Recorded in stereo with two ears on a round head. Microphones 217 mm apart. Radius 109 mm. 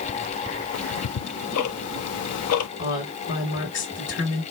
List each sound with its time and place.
0.7 s ticking: 70° left (ahead or behind), 0.7 m
2.8 s a woman speaking: 50° left (ahead or behind), 2.0 m